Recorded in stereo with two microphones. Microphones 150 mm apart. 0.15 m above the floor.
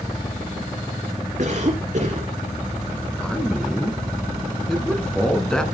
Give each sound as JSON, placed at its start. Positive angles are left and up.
{"t": 1.4, "sound": "a cough", "side_deg": -55, "distance_m": 2.0}
{"t": 3.2, "sound": "a man speaking", "side_deg": 5, "distance_m": 1.7}